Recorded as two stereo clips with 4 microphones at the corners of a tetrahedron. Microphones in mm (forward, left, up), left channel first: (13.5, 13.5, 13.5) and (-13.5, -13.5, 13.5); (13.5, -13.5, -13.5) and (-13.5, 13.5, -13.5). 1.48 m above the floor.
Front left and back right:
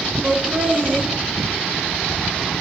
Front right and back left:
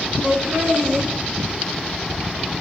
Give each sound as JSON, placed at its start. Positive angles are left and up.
{"t": 0.2, "sound": "laughter", "azimuth_deg": -165, "distance_m": 1.9}